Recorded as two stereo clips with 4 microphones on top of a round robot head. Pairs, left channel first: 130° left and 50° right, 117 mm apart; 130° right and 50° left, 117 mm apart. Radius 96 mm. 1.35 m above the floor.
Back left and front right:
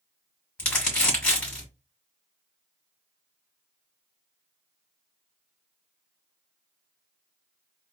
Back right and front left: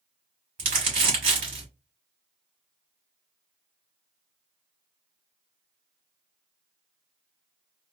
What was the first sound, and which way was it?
Crumpling, 50° left.